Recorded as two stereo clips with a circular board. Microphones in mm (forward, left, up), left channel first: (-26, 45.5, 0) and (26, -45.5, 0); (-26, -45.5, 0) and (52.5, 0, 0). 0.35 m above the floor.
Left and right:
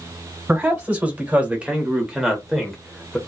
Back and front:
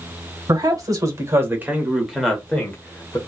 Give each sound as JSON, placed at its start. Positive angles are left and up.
{"t": 0.5, "sound": "a man speaking", "azimuth_deg": 10, "distance_m": 1.2}